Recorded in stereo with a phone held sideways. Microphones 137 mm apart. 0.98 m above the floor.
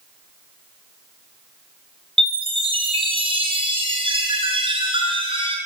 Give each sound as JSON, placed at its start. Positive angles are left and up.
{"t": 2.2, "sound": "a chime", "side_deg": -40, "distance_m": 3.5}